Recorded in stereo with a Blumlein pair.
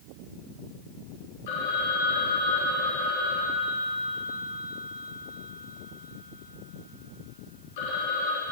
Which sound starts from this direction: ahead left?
A phone ringing, at 1.5 s.